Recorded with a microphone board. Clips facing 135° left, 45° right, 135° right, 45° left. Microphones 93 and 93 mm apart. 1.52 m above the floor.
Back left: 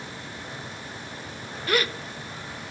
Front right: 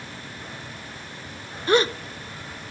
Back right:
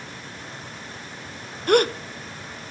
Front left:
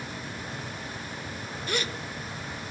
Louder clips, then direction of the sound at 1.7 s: Front right 6 dB, back right 14 dB; 105° right.